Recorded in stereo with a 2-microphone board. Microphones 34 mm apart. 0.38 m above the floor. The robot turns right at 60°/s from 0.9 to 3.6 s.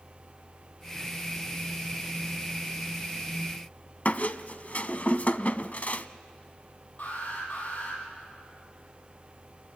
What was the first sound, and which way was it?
A squeak, 50° left (ahead or behind).